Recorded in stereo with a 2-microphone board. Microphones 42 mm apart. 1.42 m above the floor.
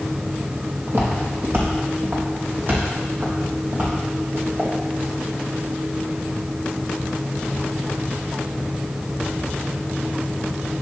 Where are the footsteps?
55° right (ahead or behind), 3.5 m; by 4.7 s 40° right (ahead or behind), 5.5 m.